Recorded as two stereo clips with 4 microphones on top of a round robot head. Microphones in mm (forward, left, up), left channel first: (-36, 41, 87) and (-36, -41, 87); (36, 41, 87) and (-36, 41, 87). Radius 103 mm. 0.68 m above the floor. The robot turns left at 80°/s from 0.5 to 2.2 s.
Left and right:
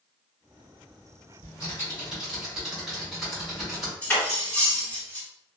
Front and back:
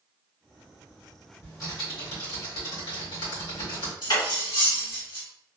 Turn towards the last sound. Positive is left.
turn(degrees=15)